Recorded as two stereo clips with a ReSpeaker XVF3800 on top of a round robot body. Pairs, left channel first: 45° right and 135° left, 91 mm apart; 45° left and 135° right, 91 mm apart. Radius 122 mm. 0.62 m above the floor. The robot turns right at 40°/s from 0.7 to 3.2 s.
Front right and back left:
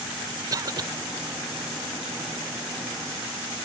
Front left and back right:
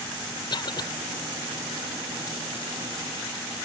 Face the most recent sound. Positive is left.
turn(degrees=-175)